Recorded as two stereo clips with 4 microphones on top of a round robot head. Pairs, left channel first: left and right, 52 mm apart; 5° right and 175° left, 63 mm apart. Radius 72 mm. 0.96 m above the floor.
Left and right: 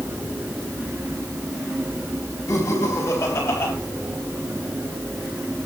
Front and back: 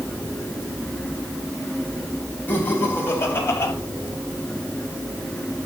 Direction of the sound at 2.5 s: 55° left.